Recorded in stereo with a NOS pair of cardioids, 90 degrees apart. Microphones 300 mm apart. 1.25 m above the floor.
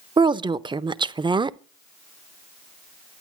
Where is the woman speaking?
15° right, 0.6 m.